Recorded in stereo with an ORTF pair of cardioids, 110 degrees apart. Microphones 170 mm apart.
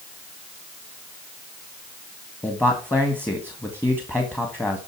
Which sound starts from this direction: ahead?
A man speaking, at 2.4 s.